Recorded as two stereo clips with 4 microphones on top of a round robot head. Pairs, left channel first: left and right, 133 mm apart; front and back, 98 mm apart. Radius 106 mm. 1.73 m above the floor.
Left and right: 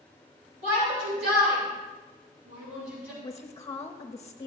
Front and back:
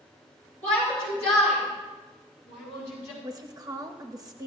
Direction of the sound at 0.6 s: 70° right.